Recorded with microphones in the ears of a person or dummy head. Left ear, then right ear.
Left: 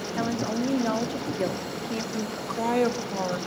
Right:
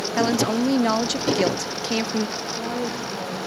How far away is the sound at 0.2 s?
About 0.7 m.